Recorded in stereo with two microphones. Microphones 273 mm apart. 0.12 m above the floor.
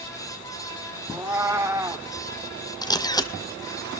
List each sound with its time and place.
1.1 s a cat meowing: 10° right (ahead or behind), 1.2 m
2.8 s a camera shutter: 15° left (ahead or behind), 1.1 m